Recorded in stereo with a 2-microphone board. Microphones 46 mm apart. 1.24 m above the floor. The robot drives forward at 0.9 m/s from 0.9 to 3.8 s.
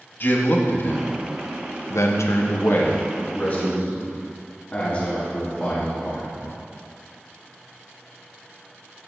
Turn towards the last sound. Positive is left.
turn(degrees=30)  # may be behind; listen again after turning